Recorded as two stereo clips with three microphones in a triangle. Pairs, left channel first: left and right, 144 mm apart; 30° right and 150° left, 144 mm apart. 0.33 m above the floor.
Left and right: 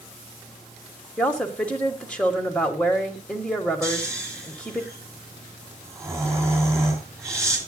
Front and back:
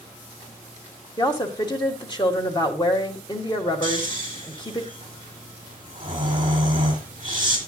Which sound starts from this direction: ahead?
A woman speaking, at 1.2 s.